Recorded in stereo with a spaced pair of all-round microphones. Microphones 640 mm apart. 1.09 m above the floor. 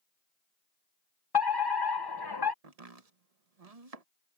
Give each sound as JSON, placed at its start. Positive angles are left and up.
{"t": 1.3, "sound": "a fire alarm", "side_deg": 35}
{"t": 2.6, "sound": "chopping", "side_deg": -70}